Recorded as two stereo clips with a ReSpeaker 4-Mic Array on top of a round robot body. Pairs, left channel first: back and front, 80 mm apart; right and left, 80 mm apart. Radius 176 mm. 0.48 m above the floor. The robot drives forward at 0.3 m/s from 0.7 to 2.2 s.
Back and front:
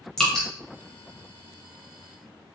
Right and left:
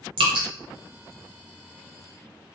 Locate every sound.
0.2 s dripping: 100° left, 0.7 m